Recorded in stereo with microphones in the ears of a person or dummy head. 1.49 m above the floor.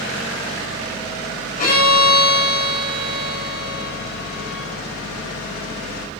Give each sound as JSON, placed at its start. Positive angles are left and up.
{"t": 1.6, "sound": "a violin", "side_deg": 45, "distance_m": 4.0}